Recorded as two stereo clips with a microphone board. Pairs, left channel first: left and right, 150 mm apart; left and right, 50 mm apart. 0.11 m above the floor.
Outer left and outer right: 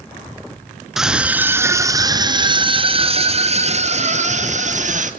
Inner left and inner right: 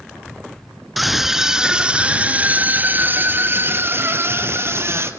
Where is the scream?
Centre (ahead or behind), 1.4 m; by 5.1 s 55° right (ahead or behind), 3 m.